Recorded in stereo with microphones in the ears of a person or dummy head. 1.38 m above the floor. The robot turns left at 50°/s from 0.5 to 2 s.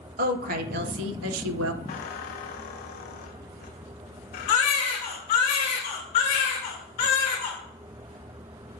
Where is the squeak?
40° left (ahead or behind), 0.8 m; by 5.5 s 45° left (ahead or behind), 0.8 m.